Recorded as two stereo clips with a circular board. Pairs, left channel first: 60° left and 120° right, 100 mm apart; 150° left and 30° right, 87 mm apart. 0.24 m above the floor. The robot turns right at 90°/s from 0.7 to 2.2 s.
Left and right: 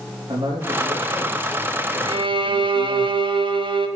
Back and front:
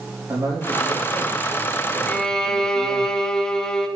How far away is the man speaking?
About 6 m.